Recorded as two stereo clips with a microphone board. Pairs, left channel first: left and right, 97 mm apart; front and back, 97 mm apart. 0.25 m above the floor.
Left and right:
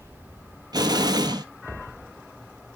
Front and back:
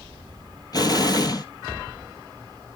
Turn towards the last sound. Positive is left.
turn(degrees=-45)